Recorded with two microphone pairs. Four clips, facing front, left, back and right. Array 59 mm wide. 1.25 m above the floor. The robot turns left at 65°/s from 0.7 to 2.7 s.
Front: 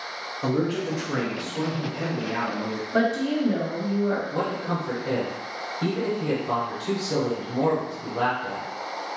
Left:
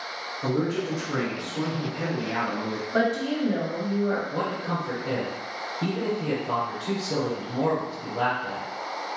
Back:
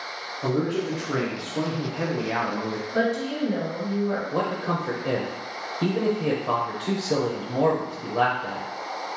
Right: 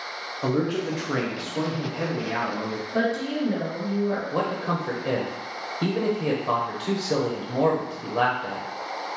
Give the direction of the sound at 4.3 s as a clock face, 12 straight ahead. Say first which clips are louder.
Right 2 dB, back 1 dB; 4 o'clock.